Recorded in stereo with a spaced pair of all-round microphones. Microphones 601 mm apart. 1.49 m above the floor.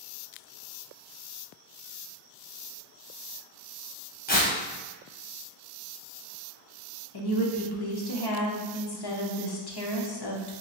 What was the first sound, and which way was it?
Tearing paper, 15° left (ahead or behind).